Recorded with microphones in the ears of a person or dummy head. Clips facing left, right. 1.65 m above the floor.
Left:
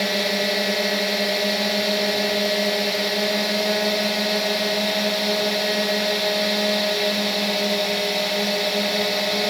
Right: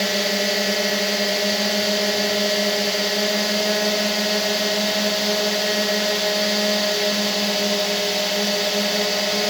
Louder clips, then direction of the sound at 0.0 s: Even; 5° right (ahead or behind).